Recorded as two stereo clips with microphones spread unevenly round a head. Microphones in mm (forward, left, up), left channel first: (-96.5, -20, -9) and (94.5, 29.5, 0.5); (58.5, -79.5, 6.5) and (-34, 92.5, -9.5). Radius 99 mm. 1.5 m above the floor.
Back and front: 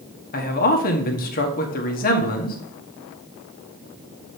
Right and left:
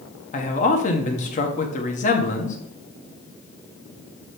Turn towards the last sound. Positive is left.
turn(degrees=-120)